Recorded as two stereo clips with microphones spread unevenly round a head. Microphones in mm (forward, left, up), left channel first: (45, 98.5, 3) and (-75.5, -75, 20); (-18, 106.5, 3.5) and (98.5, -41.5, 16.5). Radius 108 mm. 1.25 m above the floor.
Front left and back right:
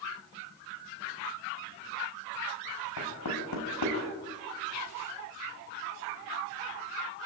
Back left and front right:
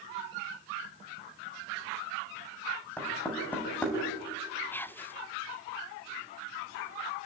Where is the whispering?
50° left, 1.2 m.